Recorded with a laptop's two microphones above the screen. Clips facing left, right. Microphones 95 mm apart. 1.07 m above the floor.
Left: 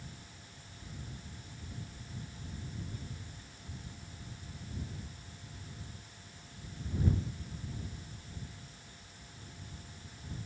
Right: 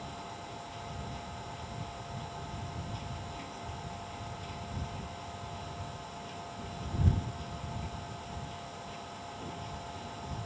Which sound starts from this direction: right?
A machine running, at 0.0 s.